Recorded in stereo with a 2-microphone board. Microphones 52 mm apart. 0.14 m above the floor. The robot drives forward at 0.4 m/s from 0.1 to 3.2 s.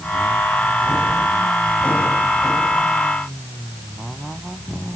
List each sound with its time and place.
Only background noise.